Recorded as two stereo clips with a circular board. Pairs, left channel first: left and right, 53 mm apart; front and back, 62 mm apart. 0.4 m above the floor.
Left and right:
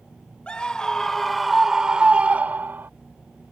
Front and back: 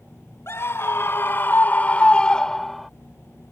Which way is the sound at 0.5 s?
25° left.